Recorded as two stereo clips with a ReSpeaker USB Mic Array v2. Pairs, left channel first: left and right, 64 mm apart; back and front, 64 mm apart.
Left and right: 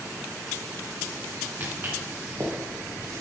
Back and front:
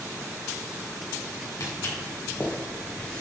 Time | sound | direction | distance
1.6 | footsteps | 145° right | 3 m